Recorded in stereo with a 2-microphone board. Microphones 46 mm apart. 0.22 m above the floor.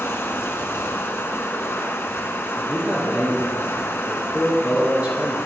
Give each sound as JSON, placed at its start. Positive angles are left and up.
{"t": 0.0, "sound": "running water", "side_deg": 60, "distance_m": 0.9}
{"t": 2.5, "sound": "a man speaking", "side_deg": -30, "distance_m": 3.0}